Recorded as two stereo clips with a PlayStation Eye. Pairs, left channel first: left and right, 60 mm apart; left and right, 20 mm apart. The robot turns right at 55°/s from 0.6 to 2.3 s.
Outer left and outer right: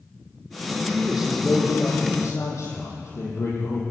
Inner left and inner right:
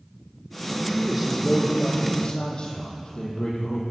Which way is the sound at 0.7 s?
35° right.